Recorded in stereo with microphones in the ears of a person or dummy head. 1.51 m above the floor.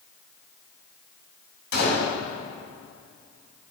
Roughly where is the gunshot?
Left.